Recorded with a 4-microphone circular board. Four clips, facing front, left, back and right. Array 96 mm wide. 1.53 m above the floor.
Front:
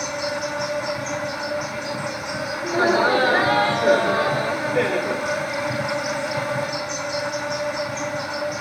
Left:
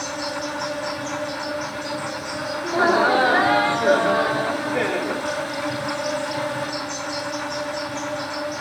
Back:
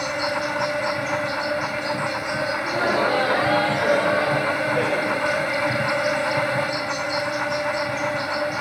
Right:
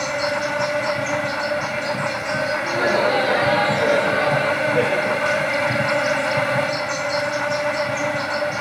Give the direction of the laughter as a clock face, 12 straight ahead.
10 o'clock.